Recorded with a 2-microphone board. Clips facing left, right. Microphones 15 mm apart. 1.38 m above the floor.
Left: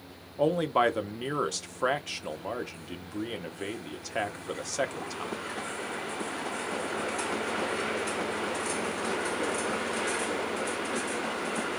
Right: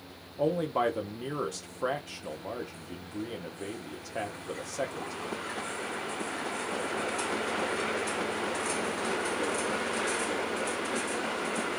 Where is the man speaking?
45° left (ahead or behind), 0.7 m.